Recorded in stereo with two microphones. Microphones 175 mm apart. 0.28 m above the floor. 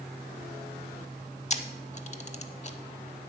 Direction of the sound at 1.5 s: 40° left (ahead or behind).